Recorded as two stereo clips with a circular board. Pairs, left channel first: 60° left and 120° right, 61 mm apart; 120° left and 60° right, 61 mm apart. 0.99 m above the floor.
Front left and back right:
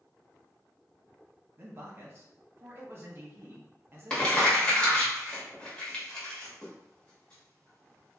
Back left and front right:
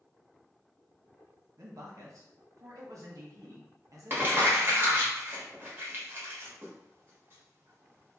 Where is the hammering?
No hammering in this recording.